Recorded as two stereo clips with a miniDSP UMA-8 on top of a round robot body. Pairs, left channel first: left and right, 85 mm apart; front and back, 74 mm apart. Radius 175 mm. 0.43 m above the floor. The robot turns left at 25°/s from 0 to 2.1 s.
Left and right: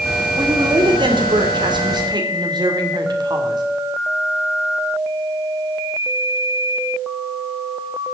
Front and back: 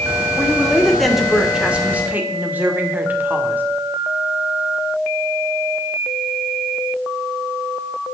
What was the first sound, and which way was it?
A woman speaking, 70° right.